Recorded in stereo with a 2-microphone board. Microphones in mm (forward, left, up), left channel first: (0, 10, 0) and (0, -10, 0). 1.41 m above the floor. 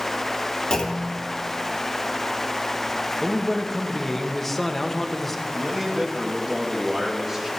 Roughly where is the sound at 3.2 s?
Centre.